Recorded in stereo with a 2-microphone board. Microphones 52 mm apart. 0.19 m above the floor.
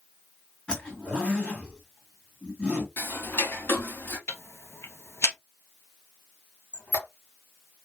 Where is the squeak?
35° left (ahead or behind), 1.8 m.